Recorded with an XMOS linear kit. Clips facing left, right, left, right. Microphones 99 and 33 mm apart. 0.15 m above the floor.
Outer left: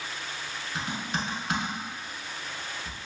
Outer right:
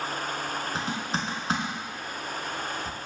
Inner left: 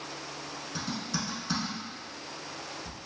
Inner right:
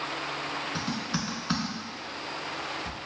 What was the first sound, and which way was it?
Typing on a keyboard, 35° right (ahead or behind).